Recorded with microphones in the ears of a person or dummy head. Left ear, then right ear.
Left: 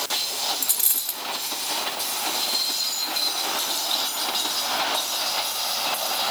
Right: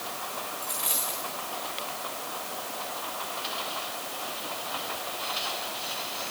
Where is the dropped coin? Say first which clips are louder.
Left 4 dB; 30° left (ahead or behind), 1.5 m.